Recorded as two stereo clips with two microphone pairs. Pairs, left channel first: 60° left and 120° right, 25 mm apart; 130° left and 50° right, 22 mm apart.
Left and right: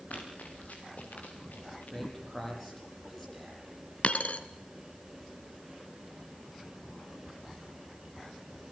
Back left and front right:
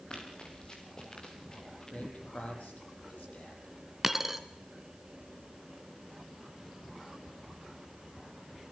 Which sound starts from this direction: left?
Running footsteps, at 0.1 s.